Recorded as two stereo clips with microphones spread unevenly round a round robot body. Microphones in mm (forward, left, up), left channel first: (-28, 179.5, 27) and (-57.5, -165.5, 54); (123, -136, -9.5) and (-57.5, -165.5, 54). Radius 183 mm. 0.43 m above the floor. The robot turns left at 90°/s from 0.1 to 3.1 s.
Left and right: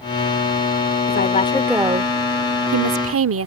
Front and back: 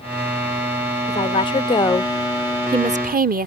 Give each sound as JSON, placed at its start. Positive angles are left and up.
{"t": 1.1, "sound": "a woman speaking", "azimuth_deg": 50}